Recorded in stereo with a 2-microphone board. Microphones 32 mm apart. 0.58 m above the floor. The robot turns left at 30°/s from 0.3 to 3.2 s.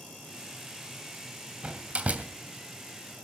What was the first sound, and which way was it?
A door slam, 35° right (ahead or behind).